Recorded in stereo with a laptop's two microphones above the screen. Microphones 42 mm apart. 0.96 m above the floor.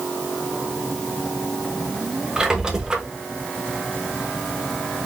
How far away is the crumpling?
I don't hear crumpling.